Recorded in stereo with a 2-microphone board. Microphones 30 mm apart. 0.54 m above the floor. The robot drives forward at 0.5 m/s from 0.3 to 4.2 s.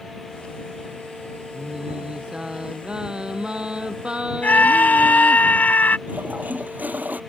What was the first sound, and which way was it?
Singing, 30° right (ahead or behind).